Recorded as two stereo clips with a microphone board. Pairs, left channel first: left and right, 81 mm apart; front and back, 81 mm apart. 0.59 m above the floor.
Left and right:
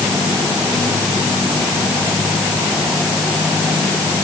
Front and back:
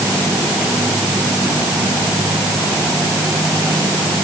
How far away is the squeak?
I don't hear a squeak.